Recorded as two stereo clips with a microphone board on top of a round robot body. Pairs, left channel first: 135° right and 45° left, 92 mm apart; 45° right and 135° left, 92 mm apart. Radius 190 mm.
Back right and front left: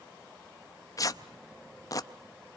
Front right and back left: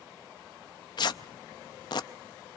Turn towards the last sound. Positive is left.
turn(degrees=-85)